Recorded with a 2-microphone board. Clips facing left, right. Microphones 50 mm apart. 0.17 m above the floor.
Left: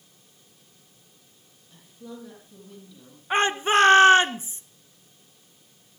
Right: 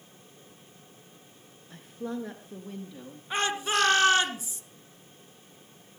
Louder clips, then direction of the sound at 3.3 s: Left 7 dB; 35° left (ahead or behind).